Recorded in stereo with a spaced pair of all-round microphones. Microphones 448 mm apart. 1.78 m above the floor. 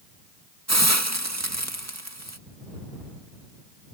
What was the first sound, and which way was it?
A hiss, 35° right (ahead or behind).